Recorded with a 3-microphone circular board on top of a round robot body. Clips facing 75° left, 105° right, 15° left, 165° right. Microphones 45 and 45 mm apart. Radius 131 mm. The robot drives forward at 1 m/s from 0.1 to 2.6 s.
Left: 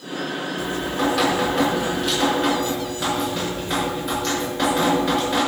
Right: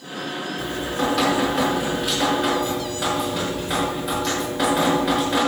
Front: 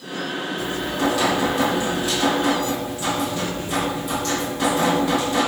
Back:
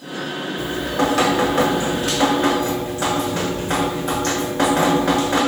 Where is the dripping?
160° left, 4 m; by 5.4 s 165° left, 6 m.